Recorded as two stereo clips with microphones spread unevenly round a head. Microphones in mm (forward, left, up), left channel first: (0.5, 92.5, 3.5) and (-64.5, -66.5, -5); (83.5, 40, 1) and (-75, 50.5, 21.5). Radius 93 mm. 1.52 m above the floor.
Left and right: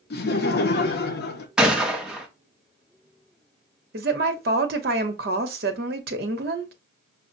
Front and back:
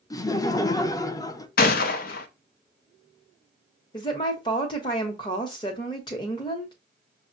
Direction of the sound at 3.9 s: 70° right.